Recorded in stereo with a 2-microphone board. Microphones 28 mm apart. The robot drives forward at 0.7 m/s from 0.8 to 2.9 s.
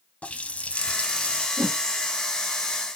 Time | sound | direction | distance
0.2 | a running tap | 40° left (ahead or behind) | 0.9 m
1.6 | a whoosh | 65° right (ahead or behind) | 3.5 m